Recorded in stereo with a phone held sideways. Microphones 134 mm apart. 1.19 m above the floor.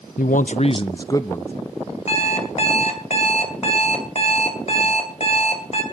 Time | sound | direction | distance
0.2 | a man speaking | 80° left | 0.5 m
2.1 | an alarm clock | 50° left (ahead or behind) | 2.5 m